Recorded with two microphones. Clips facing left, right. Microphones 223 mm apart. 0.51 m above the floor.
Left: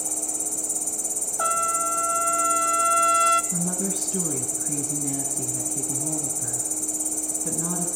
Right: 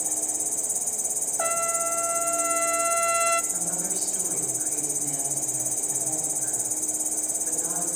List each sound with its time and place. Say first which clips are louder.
0.0 s an insect: left 2 dB; 5° right (ahead or behind), 0.9 m
1.4 s a trumpet: right 2 dB; 20° right (ahead or behind), 0.9 m
3.5 s a woman speaking: left 8 dB; 80° left, 4 m